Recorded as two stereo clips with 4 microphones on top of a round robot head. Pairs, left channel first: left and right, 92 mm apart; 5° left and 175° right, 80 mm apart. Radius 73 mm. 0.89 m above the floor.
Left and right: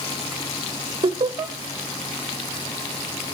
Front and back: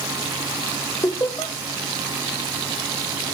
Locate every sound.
1.0 s laughter: 50° right, 1.2 m